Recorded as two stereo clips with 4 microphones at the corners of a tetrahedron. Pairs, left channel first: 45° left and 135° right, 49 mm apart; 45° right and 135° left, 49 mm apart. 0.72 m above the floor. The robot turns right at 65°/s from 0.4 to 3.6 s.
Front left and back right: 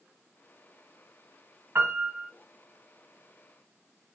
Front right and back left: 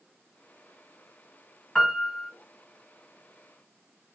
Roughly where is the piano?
Behind right.